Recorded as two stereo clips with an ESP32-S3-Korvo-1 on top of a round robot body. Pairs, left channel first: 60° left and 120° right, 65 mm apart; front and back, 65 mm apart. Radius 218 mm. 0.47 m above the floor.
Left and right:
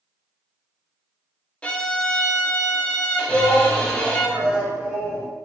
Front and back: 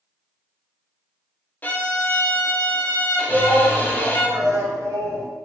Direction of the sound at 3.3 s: 170° left.